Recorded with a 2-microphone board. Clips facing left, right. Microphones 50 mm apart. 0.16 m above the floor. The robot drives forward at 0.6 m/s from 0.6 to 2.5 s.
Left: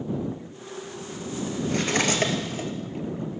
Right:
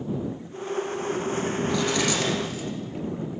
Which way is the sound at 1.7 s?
45° left (ahead or behind).